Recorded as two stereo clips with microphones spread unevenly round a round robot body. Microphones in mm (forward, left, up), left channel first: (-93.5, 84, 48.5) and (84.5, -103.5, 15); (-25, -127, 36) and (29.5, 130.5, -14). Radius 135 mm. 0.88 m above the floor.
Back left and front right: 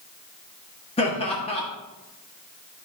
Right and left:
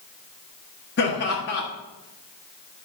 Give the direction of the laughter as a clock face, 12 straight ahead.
5 o'clock.